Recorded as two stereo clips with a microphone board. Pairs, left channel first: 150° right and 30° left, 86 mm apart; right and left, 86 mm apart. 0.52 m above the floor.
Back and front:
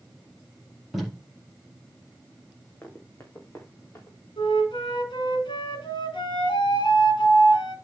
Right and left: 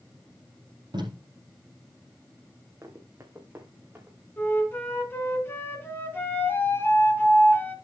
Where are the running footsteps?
145° left, 2.5 m; by 4.2 s 160° left, 3.5 m.